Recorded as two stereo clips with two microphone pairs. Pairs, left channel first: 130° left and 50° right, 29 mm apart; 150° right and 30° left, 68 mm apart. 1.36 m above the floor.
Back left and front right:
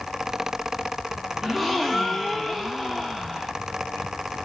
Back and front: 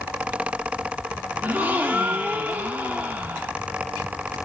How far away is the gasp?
About 0.6 m.